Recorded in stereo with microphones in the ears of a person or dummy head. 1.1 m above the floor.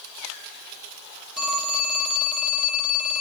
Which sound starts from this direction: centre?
A phone ringing, at 1.4 s.